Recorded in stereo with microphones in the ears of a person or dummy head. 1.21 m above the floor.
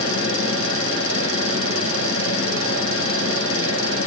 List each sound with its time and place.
0.0 s a fan: 30° left (ahead or behind), 7.5 m